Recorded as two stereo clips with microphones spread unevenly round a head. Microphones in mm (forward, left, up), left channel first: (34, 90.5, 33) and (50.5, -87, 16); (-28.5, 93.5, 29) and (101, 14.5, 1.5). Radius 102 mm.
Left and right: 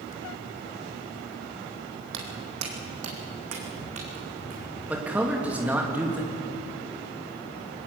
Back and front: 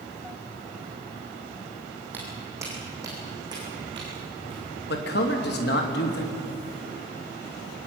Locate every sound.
2.1 s footsteps: 115° right, 3.5 m; by 4.8 s 100° right, 7 m
4.9 s a man speaking: 170° right, 2.5 m